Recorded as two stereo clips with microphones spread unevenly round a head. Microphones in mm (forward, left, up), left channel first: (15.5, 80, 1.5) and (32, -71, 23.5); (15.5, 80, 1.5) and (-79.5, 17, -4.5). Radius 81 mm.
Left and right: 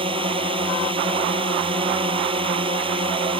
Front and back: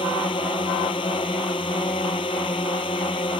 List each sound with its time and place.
0.0 s a drone: 30° right